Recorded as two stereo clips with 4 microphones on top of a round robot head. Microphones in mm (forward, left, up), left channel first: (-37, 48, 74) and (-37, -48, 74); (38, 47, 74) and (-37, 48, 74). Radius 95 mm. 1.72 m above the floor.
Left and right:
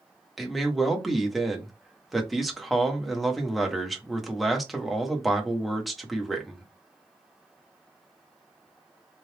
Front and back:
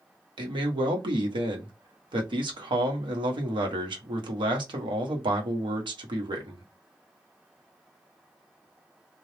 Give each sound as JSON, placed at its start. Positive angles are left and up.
{"t": 0.4, "sound": "a man speaking", "azimuth_deg": 180, "distance_m": 1.0}